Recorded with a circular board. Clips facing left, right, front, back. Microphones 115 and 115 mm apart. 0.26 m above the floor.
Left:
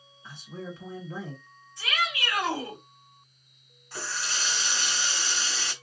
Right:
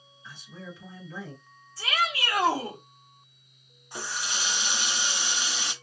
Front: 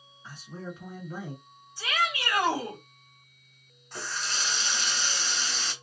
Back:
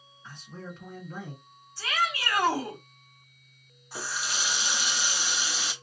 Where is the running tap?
120° right, 0.7 m.